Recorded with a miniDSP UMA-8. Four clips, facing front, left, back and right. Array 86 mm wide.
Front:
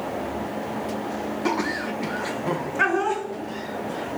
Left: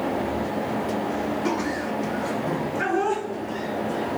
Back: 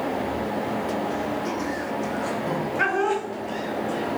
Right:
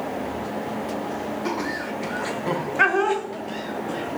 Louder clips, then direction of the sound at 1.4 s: Left 2 dB, front 2 dB; 5° right.